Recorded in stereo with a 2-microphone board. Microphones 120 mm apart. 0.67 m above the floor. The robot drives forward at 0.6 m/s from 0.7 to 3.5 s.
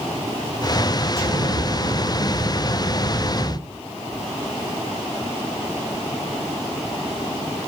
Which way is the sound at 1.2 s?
60° right (ahead or behind).